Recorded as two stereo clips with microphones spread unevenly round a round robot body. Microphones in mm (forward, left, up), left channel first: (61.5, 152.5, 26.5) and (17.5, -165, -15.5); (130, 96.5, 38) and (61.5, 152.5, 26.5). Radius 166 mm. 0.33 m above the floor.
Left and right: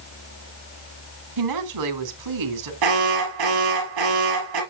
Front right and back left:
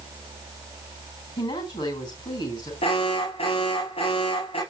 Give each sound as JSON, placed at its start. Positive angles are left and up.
{"t": 1.4, "sound": "a woman speaking", "azimuth_deg": -95, "distance_m": 3.5}
{"t": 2.8, "sound": "an alarm", "azimuth_deg": -85, "distance_m": 4.5}